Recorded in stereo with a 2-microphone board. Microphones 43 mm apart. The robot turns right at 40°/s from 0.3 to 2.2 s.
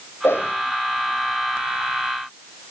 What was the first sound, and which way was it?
A whoosh, 85° left.